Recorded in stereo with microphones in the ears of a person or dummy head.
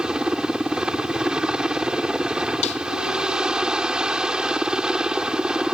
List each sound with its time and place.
0.0 s a helicopter: 10° right (ahead or behind)
2.6 s a snare drum: 45° left (ahead or behind)